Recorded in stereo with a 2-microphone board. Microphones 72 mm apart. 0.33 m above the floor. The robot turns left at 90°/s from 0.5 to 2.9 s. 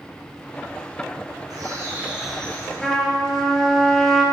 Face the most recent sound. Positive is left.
turn(degrees=0)  # may be behind; listen again after turning